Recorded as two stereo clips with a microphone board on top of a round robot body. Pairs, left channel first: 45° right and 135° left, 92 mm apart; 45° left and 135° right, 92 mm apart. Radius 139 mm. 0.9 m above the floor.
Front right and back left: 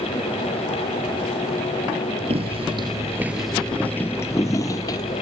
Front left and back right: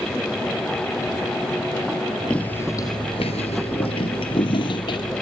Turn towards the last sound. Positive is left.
turn(degrees=5)